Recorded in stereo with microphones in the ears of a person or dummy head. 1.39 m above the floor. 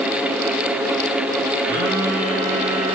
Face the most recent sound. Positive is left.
turn(degrees=-55)  # may be behind; listen again after turning